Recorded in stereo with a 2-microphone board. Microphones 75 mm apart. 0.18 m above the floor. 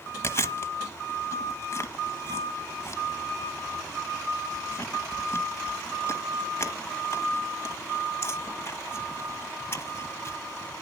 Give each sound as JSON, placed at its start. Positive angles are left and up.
{"t": 0.2, "sound": "chewing", "side_deg": 35, "distance_m": 1.2}